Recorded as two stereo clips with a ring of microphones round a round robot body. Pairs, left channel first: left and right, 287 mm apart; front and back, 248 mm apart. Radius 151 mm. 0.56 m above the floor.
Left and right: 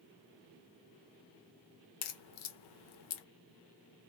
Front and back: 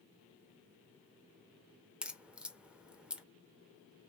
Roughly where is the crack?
Left.